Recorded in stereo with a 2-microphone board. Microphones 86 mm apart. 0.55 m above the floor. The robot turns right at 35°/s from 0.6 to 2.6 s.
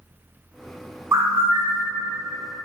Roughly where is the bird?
Right.